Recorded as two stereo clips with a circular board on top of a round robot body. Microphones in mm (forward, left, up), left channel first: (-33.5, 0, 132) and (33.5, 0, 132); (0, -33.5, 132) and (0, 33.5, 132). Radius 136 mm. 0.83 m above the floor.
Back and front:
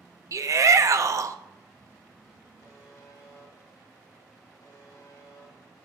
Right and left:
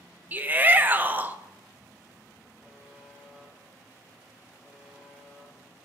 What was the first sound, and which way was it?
A shout, 30° left.